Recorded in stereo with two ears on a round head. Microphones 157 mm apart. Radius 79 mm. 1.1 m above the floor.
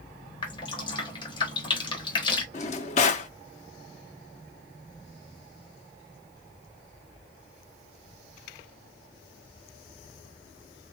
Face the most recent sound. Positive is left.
turn(degrees=40)  # may be behind; listen again after turning